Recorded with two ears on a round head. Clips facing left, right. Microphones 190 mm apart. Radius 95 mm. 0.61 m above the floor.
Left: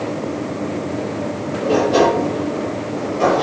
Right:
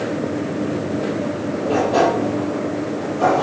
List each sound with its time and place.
1.6 s a sliding door: 35° left (ahead or behind), 6 m